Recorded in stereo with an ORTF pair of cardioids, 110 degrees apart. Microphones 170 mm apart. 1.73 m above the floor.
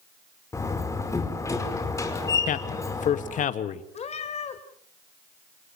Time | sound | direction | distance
0.5 | a door slam | 20° left | 5 m
2.5 | a man speaking | 55° left | 2 m
3.9 | a cat meowing | 40° left | 4 m